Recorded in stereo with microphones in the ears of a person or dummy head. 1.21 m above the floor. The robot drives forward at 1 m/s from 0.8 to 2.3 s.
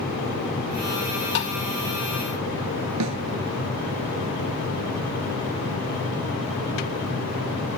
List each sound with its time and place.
1.4 s tapping: 55° left (ahead or behind); by 1.6 s 60° left (ahead or behind)
3.0 s a snare drum: 90° right